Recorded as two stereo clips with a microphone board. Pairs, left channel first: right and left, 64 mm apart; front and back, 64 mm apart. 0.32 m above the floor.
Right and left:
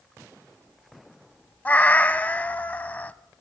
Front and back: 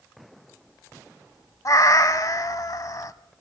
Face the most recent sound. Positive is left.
turn(degrees=-25)